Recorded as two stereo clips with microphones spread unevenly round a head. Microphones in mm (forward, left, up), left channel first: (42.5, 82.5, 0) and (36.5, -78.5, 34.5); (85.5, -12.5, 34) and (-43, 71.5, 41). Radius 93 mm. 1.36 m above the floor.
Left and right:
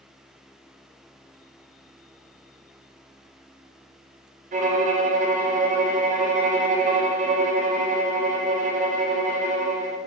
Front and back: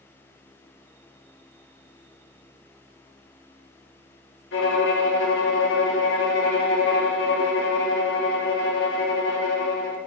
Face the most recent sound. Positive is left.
turn(degrees=-50)